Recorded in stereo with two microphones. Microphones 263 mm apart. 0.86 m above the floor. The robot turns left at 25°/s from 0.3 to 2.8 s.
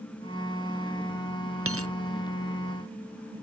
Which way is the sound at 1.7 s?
55° right (ahead or behind).